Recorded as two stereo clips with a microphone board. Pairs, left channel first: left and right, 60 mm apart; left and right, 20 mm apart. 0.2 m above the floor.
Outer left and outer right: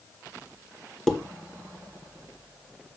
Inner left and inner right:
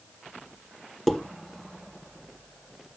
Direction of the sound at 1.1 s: 5° left (ahead or behind).